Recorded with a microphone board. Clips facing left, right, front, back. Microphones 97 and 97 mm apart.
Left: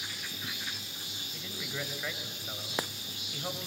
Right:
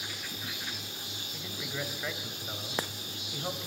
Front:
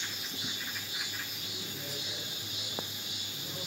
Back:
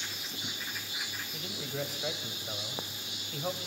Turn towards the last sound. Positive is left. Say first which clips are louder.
# right 1 dB, back 7 dB
turn(degrees=-175)